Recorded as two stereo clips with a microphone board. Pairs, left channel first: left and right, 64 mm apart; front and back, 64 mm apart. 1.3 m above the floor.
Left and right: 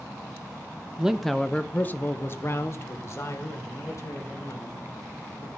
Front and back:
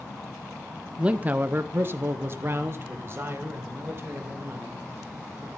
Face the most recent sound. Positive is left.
turn(degrees=125)